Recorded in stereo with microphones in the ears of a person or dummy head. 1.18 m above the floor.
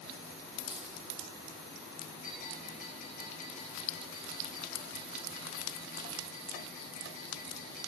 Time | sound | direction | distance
0.6 | a dropped coin | 5° right (ahead or behind) | 1.9 m
2.2 | a bell | 60° left (ahead or behind) | 8 m